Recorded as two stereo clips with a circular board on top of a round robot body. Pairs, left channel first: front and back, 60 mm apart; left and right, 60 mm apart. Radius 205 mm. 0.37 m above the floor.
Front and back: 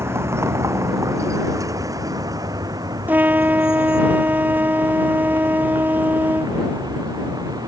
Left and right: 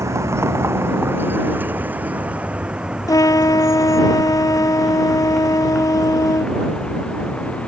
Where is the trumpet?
115° left.